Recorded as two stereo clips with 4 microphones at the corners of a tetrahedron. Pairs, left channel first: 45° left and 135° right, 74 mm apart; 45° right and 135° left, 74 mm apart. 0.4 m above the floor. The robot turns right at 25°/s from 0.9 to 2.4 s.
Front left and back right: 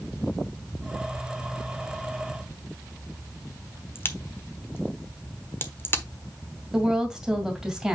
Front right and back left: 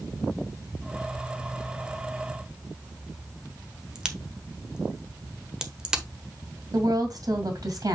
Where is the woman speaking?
145° left, 2 m.